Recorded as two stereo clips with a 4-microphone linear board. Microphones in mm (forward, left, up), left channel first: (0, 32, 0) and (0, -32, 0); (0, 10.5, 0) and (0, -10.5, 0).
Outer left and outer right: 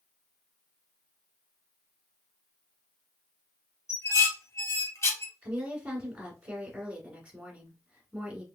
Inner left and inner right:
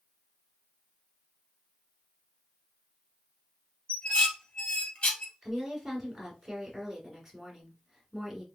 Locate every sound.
3.9 s dishes clattering: 50° left (ahead or behind), 1.8 m
5.4 s a woman speaking: 20° right (ahead or behind), 1.4 m